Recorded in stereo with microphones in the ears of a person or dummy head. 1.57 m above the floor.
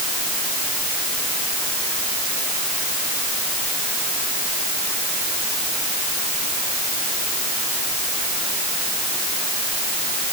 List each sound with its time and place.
Only background noise.